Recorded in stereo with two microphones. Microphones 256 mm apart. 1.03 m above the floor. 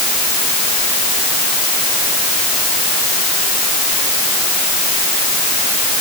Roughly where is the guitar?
No guitar in this recording.